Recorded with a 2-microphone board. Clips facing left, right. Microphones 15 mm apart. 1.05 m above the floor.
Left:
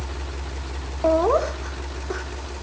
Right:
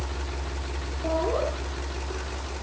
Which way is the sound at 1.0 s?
75° left (ahead or behind).